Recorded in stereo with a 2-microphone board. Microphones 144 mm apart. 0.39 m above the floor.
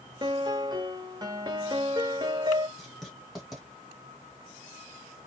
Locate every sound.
0.2 s a piano: 30° right (ahead or behind), 1.1 m
2.8 s writing: centre (ahead or behind), 2.5 m